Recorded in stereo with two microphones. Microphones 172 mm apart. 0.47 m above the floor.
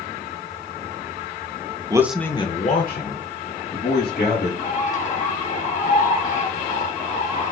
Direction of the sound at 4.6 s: 50° left (ahead or behind).